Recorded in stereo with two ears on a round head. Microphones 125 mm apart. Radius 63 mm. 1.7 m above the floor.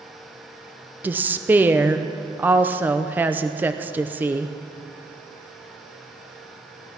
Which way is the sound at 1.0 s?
15° right (ahead or behind).